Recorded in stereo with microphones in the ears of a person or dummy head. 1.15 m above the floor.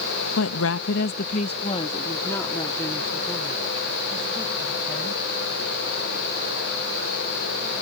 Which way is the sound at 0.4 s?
75° left (ahead or behind).